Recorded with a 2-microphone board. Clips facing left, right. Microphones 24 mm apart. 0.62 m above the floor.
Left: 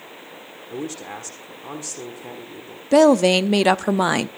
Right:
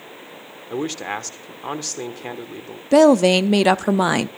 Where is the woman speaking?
Centre (ahead or behind), 0.5 m.